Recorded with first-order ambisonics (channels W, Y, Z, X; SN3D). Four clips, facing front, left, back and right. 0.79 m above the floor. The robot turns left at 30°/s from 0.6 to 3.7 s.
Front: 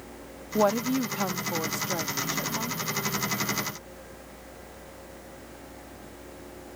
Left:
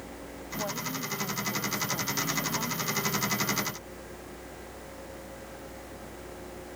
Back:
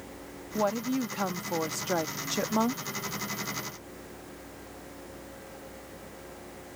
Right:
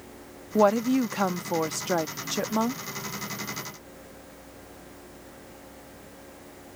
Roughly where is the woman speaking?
Right.